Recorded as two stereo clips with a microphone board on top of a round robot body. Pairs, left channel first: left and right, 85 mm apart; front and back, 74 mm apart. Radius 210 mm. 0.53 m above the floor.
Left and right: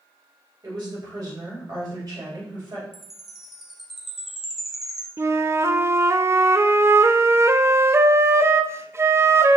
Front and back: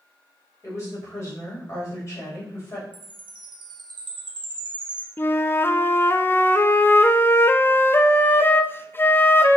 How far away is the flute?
About 0.6 m.